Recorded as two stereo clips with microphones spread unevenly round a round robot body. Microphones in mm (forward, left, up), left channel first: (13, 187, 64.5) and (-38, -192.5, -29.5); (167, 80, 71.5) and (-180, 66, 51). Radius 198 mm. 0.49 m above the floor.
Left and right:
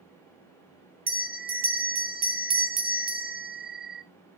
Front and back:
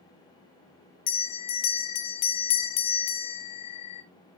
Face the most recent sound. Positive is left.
turn(degrees=-20)